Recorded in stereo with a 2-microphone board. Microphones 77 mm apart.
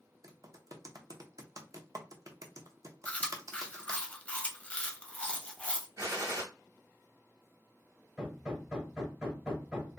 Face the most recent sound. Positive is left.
turn(degrees=-5)  # may be behind; listen again after turning